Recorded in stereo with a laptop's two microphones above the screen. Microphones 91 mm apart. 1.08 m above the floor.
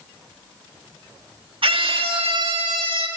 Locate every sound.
1.6 s a scream: 75° right (ahead or behind), 1.4 m